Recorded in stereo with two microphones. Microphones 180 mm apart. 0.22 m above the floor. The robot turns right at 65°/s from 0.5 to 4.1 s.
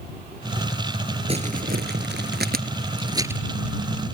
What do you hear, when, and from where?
1.3 s crumpling: 35° right (ahead or behind); by 3.4 s 5° right (ahead or behind)